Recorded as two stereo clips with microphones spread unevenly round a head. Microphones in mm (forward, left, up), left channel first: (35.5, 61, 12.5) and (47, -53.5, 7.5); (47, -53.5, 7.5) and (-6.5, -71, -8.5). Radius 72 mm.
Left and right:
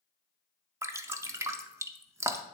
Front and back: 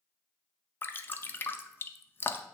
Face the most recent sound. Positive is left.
turn(degrees=-35)